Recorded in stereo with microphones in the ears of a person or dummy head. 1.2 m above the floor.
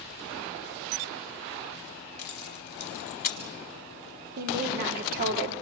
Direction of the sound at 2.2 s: 55° left (ahead or behind).